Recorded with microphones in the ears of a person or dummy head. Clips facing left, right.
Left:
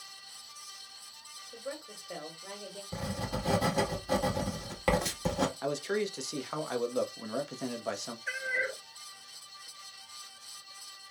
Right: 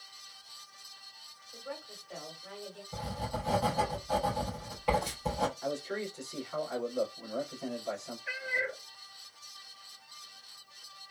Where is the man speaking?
85° left, 0.8 m.